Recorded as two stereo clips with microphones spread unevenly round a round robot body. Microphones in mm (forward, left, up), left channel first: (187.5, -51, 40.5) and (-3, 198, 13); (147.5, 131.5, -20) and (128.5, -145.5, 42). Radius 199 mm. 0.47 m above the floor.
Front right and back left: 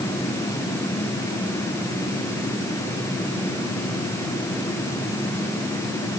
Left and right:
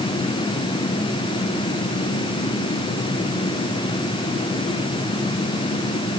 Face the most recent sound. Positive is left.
No sound to turn to.